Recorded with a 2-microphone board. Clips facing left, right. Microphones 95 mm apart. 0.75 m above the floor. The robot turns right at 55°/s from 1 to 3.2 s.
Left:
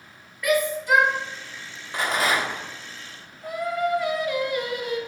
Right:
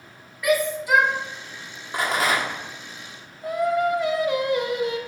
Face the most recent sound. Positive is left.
turn(degrees=-25)  # may be behind; listen again after turning